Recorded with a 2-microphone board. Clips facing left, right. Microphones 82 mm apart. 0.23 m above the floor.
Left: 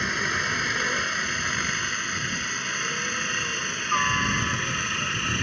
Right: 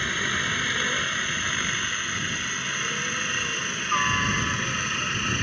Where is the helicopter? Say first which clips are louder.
Left 1 dB; 10° left (ahead or behind); by 5.4 s centre (ahead or behind).